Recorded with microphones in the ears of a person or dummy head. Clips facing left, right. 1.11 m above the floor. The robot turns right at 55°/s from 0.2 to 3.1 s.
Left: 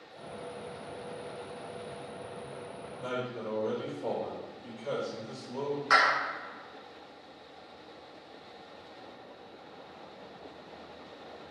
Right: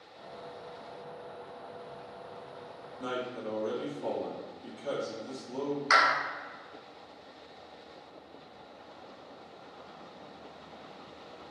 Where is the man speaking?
70° right (ahead or behind), 1.7 m; by 5.8 s 80° right, 1.7 m.